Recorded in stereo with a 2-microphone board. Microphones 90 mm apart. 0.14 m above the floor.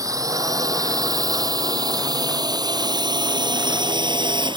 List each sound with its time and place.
0.0 s a drone: 40° right (ahead or behind); by 4.6 s 60° right (ahead or behind)